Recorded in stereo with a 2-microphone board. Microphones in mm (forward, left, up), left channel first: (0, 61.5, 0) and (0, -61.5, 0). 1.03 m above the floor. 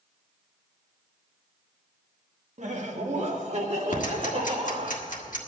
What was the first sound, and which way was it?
Laughter, 65° right (ahead or behind).